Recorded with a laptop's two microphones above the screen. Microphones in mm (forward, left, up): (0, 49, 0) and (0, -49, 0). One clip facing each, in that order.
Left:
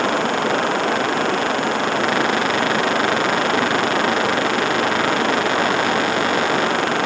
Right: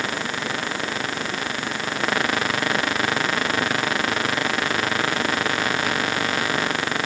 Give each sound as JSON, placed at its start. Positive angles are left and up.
{"t": 0.0, "sound": "running water", "side_deg": 65}